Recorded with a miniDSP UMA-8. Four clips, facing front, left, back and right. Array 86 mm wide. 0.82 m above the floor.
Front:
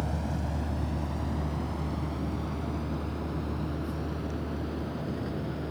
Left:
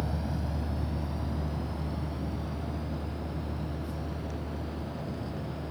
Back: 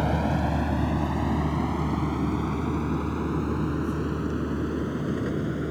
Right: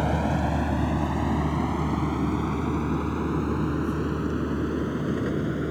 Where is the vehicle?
130° right; by 5.7 s 115° right.